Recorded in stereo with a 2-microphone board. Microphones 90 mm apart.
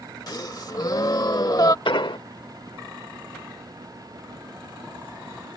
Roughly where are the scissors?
I don't hear scissors.